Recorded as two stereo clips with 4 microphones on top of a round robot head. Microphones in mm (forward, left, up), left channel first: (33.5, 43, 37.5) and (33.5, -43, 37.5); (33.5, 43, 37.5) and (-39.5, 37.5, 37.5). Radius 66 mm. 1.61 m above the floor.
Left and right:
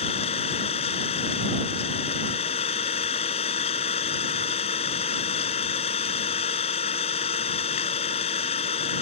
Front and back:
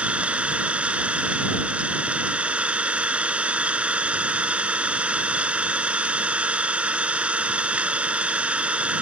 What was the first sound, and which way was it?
An engine running, 110° left.